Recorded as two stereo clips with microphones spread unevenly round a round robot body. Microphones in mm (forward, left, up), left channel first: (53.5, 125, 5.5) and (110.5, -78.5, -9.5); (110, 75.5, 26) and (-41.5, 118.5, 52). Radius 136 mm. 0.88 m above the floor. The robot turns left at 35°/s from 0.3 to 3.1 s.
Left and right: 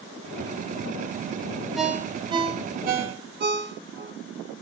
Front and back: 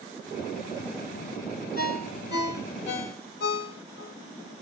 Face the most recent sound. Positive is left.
turn(degrees=-30)